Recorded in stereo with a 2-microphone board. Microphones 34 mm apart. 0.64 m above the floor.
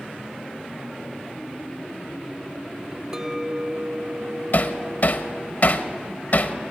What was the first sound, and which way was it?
A clink, 15° right (ahead or behind).